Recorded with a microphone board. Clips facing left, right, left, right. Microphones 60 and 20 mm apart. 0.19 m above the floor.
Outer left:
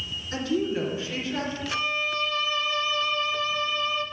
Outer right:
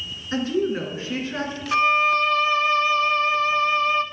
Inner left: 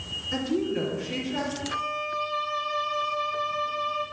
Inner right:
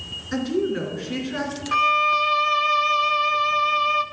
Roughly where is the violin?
Right.